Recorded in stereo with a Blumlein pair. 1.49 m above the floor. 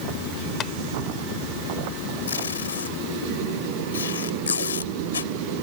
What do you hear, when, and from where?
0.6 s tapping: 25° left
2.3 s tape being pulled: 70° left